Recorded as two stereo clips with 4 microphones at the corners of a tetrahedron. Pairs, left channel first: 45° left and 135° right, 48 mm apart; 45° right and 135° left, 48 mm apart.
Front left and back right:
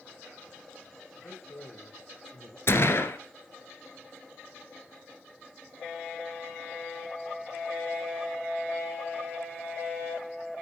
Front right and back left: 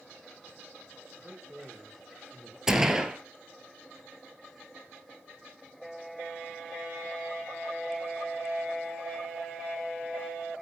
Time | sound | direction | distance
1.1 | a man speaking | 70° left | 4.5 m
2.7 | a gunshot | 55° left | 1.6 m